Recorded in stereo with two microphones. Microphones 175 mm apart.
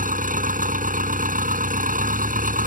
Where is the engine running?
50° right (ahead or behind).